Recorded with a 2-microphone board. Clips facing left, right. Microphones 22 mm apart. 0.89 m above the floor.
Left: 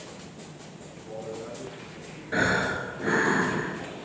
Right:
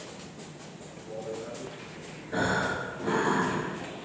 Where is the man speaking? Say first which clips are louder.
Even; 55° left (ahead or behind), 9 m.